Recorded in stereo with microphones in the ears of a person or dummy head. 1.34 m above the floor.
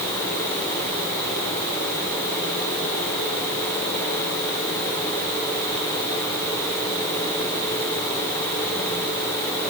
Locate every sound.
Only background noise.